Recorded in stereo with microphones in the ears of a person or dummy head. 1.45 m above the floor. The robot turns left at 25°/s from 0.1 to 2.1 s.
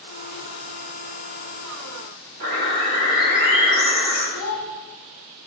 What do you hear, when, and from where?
2.4 s a bird: 50° right (ahead or behind), 0.9 m
4.3 s a child speaking: 65° left (ahead or behind), 0.6 m